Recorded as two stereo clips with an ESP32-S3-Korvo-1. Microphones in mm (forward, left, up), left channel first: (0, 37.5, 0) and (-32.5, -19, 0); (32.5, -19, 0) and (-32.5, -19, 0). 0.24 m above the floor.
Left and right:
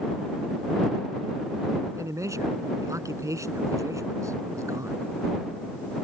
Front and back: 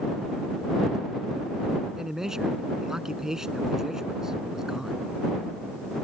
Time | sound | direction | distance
2.0 | a man speaking | 100° right | ?